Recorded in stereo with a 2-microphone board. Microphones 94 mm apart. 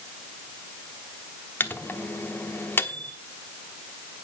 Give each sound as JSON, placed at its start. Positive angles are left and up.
{"t": 1.6, "sound": "a microwave", "side_deg": 20, "distance_m": 1.0}